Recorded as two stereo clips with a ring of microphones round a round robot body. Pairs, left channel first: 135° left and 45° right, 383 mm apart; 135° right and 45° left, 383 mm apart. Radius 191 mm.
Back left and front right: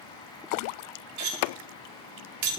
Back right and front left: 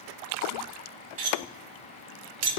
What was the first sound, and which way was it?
Cutlery clinking, 5° left.